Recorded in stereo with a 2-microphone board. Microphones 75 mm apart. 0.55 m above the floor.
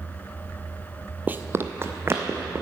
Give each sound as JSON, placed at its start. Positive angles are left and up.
{"t": 1.3, "sound": "running footsteps", "side_deg": -25, "distance_m": 0.5}